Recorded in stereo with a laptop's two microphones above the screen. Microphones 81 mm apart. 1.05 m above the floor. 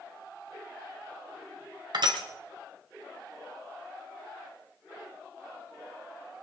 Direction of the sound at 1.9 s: 65° right (ahead or behind).